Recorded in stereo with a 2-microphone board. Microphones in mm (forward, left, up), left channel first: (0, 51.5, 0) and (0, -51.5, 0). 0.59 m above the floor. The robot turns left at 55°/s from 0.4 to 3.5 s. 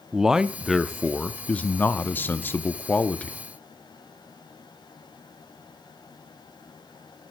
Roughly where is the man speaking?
Centre.